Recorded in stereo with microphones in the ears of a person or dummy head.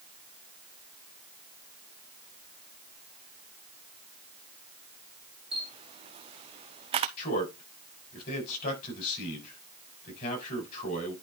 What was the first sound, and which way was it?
A camera shutter, 30° right (ahead or behind).